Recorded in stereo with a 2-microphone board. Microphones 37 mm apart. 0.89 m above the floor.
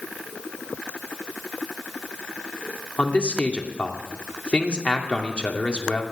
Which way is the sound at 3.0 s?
30° left (ahead or behind).